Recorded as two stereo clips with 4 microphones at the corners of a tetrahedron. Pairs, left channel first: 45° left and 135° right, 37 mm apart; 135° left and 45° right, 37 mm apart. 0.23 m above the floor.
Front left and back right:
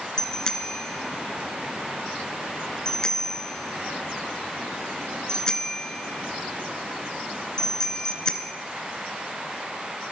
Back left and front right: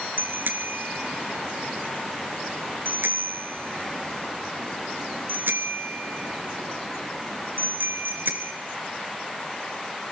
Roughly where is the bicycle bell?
Ahead right.